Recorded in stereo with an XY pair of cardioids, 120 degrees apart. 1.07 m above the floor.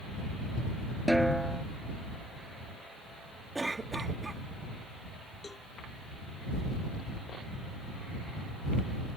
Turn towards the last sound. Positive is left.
turn(degrees=20)